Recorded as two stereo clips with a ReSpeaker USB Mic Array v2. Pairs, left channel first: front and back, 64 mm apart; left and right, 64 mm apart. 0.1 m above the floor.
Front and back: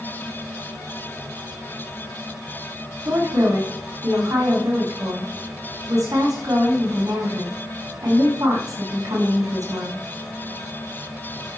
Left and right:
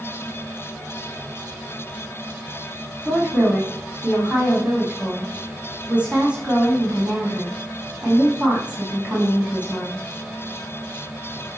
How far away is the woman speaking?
About 6 m.